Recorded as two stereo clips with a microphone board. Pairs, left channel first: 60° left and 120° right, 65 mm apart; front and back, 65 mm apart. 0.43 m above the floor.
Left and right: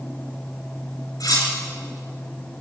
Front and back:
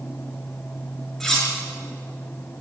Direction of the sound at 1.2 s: 85° left.